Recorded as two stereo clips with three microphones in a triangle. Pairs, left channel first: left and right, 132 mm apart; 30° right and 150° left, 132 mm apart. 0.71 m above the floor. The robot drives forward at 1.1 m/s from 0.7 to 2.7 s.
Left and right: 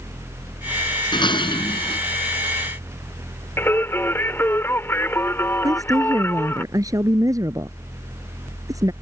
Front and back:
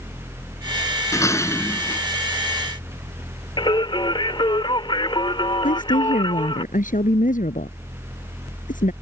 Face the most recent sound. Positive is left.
turn(degrees=-25)